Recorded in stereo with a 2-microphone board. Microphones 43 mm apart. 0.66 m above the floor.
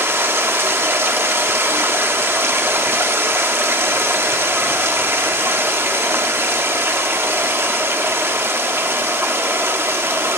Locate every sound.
0.0 s running water: 65° right (ahead or behind), 0.7 m